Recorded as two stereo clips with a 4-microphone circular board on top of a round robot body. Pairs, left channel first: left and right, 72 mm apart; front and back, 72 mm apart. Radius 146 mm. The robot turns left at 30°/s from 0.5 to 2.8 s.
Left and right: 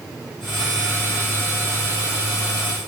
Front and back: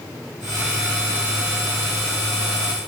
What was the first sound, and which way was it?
Only background noise.